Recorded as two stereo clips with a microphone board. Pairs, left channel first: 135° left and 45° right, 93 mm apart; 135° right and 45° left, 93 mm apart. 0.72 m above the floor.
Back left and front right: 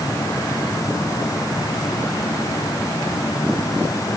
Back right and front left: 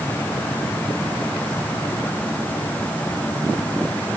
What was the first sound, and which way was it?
Only background noise.